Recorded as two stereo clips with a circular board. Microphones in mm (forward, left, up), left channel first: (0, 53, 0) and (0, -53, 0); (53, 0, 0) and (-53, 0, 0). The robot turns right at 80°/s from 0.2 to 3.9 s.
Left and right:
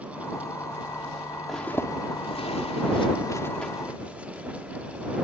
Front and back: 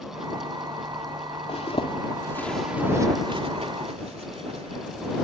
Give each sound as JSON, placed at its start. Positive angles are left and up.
{"t": 1.5, "sound": "a zipper", "azimuth_deg": 0}